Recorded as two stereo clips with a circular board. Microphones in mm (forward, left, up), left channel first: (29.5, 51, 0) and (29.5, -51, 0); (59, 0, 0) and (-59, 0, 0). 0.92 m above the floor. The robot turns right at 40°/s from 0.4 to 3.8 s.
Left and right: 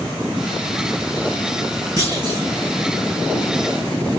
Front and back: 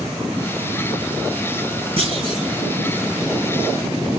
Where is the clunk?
150° right, 6 m; by 2.5 s 130° right, 6 m.